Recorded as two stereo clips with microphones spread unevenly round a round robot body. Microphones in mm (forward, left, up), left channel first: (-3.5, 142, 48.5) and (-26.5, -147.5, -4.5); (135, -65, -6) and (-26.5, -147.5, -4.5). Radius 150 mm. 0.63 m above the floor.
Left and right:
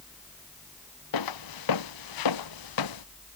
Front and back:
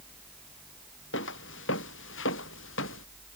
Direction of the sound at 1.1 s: 70° left.